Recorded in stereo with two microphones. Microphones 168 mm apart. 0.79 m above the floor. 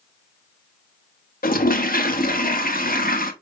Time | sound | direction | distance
1.4 | a toilet flushing | 60° left (ahead or behind) | 0.8 m